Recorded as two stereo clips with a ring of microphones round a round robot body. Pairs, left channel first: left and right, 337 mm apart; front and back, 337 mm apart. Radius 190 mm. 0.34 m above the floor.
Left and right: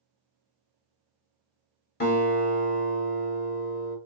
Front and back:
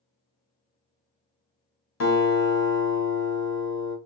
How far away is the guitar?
About 1.1 m.